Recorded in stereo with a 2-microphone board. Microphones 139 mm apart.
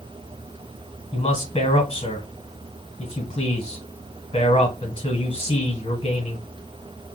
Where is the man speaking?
40° left (ahead or behind), 1.3 m.